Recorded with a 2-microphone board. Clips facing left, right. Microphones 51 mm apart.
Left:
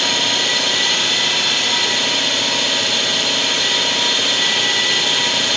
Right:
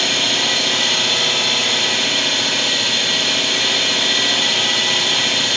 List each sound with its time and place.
0.0 s an engine running: 10° right (ahead or behind), 3.5 m